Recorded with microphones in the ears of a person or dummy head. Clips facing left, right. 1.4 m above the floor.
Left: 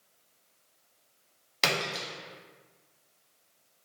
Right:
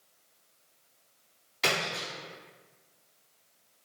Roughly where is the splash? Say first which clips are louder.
Even; left.